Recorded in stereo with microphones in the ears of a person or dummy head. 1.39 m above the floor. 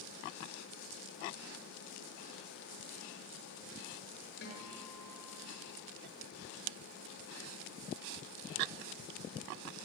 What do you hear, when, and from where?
4.4 s a guitar: 60° left (ahead or behind), 7.5 m